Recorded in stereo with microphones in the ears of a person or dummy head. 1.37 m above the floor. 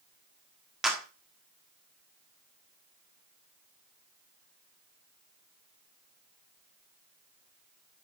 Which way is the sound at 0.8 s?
5° right (ahead or behind).